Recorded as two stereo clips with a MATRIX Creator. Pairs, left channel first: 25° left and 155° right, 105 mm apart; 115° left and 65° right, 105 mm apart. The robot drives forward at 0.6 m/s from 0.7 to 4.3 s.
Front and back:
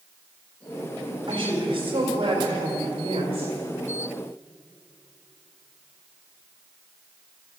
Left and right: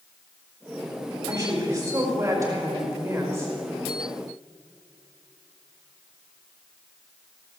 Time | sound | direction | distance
1.3 | a woman speaking | 120° right | 4.5 m